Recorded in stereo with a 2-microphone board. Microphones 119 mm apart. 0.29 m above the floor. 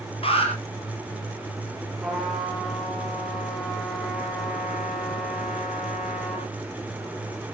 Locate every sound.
0.2 s an alarm: 50° left (ahead or behind), 4.5 m
2.0 s a trumpet: centre (ahead or behind), 6.5 m